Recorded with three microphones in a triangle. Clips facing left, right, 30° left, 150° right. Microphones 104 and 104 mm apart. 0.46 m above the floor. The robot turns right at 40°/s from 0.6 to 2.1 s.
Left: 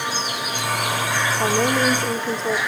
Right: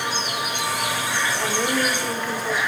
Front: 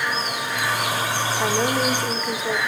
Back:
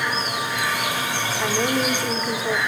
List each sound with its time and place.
1.4 s a woman speaking: 100° left, 1.5 m; by 2.6 s 125° left, 1.5 m